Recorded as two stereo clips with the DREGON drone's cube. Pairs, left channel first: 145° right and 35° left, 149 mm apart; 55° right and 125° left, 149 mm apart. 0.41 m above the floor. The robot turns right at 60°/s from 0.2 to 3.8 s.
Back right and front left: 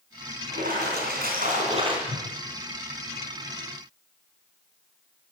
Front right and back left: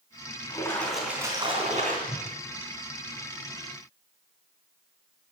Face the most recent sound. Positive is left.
turn(degrees=130)